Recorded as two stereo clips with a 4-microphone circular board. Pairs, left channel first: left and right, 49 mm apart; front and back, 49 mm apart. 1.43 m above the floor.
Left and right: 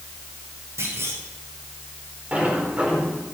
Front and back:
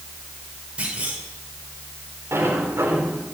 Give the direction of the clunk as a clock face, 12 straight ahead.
4 o'clock.